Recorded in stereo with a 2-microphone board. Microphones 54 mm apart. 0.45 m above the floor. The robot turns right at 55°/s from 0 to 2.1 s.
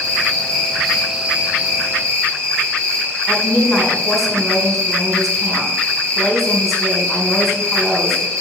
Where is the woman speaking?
Centre (ahead or behind), 4 m.